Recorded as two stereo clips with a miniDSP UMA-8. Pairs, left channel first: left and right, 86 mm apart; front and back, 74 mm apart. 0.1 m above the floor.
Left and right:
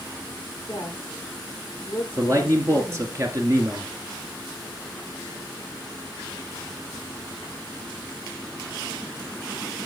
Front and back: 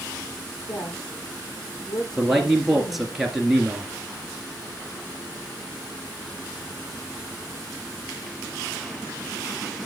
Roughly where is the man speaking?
Right.